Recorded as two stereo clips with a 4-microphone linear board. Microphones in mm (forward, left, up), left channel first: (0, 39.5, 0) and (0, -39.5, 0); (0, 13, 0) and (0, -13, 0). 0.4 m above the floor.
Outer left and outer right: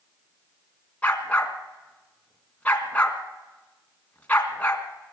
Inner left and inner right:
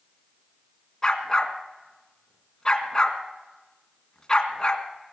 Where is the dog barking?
20° left (ahead or behind), 1.9 m.